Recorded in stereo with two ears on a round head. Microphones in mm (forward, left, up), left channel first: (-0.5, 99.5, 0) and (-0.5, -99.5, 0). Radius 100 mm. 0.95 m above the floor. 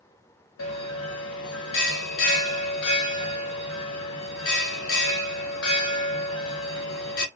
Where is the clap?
I don't hear a clap.